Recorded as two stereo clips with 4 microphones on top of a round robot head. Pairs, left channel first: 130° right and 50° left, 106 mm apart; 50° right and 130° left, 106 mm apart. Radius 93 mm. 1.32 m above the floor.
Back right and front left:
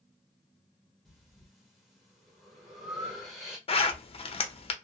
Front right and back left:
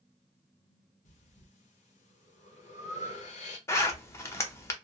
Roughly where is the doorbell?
No doorbell in this recording.